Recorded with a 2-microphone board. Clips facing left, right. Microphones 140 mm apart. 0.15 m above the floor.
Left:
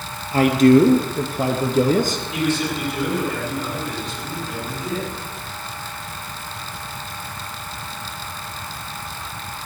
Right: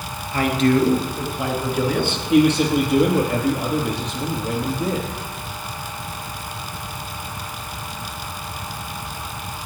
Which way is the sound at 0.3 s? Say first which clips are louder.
Left 5 dB; 40° left (ahead or behind).